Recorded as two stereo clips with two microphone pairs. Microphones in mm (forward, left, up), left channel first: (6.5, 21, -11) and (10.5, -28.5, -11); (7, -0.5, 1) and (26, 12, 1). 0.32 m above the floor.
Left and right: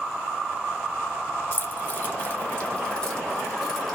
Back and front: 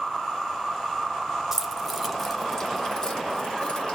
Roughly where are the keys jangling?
Left.